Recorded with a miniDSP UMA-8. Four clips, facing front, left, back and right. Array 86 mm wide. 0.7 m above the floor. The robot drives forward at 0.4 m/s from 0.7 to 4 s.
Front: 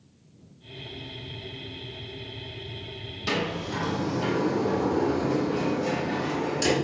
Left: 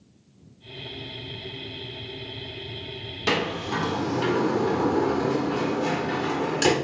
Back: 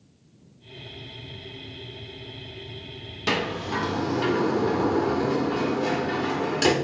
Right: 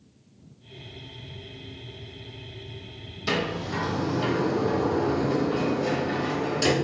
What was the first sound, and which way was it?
A sliding door, 115° left.